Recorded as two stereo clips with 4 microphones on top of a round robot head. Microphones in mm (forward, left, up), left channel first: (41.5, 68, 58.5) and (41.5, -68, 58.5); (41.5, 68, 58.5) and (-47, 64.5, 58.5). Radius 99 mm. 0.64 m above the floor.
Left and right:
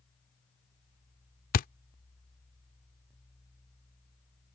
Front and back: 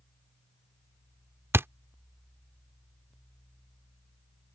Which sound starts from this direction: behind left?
A thud, at 1.5 s.